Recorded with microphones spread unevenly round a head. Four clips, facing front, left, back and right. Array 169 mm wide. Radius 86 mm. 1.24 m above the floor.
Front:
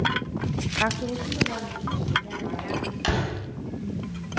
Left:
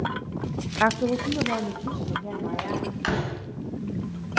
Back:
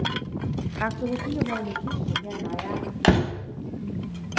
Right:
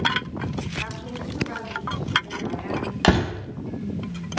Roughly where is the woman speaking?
Left.